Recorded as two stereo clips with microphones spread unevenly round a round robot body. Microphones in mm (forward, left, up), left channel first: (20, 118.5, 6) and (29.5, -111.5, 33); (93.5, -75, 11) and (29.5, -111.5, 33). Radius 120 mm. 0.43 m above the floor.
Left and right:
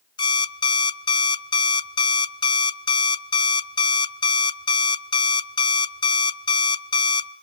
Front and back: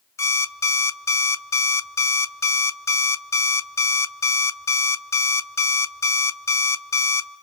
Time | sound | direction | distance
0.2 | an alarm clock | 30° left | 0.8 m